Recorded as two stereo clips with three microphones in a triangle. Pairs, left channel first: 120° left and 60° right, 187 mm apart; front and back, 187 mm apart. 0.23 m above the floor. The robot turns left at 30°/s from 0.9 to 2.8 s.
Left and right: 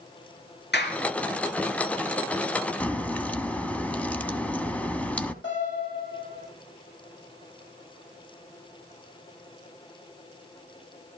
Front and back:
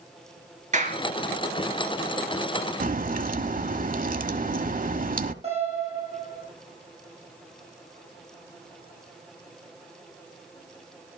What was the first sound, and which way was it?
A clap, 135° left.